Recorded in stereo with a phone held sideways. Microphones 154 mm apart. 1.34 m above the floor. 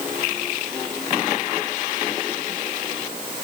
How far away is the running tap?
No running tap in this recording.